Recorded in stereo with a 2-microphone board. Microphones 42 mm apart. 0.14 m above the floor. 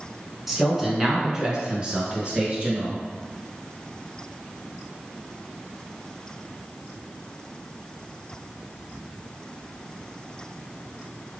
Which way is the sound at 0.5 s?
5° right (ahead or behind).